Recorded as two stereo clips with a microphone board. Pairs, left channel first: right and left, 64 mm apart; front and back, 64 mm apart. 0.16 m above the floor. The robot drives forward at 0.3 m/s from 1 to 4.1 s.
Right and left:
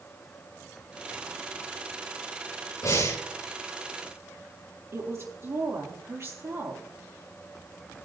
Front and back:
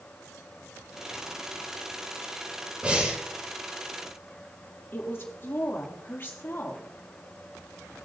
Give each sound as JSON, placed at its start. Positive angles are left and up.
{"t": 2.8, "sound": "breathing", "azimuth_deg": -110, "distance_m": 3.5}
{"t": 4.9, "sound": "a woman speaking", "azimuth_deg": 50, "distance_m": 4.0}